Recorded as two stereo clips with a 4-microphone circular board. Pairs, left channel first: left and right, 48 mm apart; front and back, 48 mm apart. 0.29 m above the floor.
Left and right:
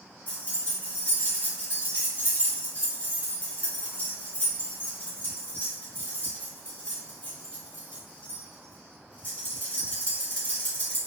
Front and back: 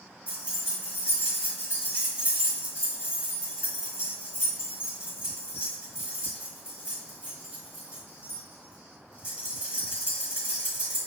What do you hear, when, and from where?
0.3 s keys jangling: 125° left, 1.2 m